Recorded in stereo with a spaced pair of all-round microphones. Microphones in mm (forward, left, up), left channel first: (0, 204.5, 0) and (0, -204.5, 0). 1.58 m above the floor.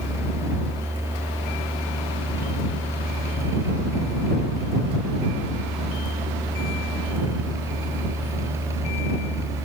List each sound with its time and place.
0.0 s a fan: 5° right (ahead or behind)